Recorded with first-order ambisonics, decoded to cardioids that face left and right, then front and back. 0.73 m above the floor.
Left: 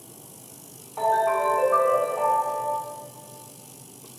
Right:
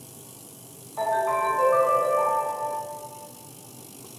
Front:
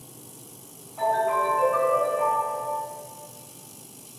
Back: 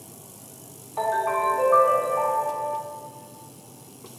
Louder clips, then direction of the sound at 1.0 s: Left 2 dB, front 1 dB; 160° left.